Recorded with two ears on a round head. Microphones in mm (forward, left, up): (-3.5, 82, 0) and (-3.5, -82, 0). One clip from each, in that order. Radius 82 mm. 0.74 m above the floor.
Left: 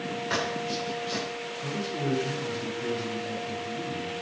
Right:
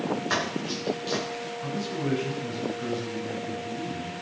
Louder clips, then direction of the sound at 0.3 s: Left 3 dB; 25° right (ahead or behind).